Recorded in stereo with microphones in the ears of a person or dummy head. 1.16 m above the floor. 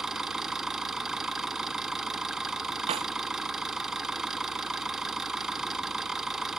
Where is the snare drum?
35° right (ahead or behind).